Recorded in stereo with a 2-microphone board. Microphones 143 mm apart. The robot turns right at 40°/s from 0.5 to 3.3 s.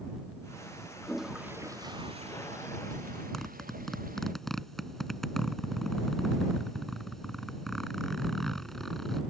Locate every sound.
1.0 s a toilet flushing: 175° left; by 4.3 s 95° right
3.3 s a zipper: centre (ahead or behind)